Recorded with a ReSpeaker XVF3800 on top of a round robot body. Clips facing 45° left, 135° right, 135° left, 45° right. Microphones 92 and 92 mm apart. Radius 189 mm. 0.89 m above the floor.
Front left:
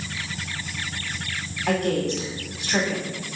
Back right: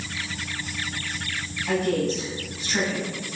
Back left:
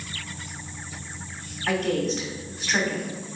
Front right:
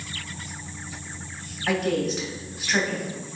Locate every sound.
1.7 s a woman speaking: 40° left, 1.5 m